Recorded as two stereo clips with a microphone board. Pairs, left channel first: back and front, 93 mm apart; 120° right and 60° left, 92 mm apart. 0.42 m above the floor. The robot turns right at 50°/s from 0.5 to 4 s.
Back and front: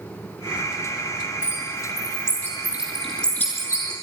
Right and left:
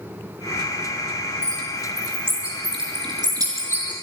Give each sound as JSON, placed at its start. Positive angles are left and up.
{"t": 1.4, "sound": "a bird", "azimuth_deg": 10, "distance_m": 5.0}